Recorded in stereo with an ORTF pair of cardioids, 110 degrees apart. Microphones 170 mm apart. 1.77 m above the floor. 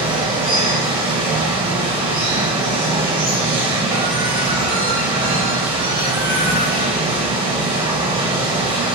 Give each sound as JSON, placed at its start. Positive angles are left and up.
{"t": 0.0, "sound": "running water", "azimuth_deg": -25, "distance_m": 1.8}